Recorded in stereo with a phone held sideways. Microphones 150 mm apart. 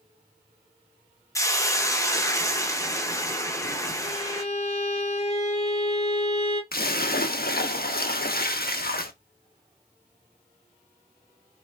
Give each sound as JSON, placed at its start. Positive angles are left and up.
{"t": 1.4, "sound": "a hiss", "side_deg": 20, "distance_m": 0.7}
{"t": 4.0, "sound": "a violin", "side_deg": 45, "distance_m": 1.0}
{"t": 6.7, "sound": "a splash", "side_deg": 70, "distance_m": 0.6}